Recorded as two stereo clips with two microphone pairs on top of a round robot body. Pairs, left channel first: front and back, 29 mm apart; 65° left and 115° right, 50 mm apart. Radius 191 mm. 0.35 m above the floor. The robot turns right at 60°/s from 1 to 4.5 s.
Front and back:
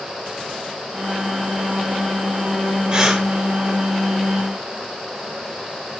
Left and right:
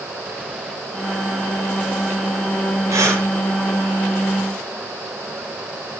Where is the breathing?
115° right, 6 m; by 3.3 s 95° right, 6 m.